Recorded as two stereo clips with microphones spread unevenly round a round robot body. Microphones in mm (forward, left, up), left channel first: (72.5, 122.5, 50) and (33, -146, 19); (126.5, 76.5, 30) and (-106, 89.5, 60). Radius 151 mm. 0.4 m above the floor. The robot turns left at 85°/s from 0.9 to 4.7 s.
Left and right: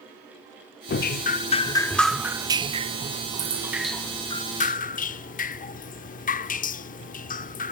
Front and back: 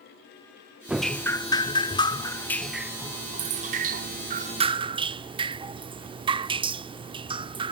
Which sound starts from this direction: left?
Dripping, at 0.9 s.